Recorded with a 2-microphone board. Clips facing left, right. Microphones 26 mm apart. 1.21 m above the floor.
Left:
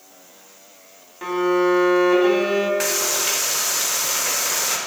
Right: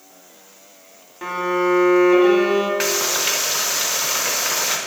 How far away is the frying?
About 0.9 m.